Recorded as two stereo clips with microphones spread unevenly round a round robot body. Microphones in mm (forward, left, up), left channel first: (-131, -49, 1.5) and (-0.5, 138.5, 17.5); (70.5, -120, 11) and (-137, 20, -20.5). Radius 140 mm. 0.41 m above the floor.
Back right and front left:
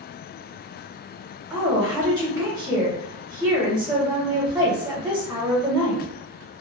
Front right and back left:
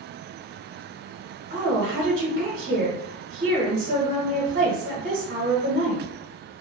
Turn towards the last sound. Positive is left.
turn(degrees=135)